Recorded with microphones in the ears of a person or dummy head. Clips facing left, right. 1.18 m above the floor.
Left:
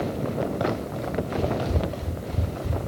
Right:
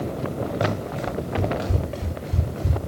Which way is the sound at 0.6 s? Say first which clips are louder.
Right 1 dB; 30° right (ahead or behind).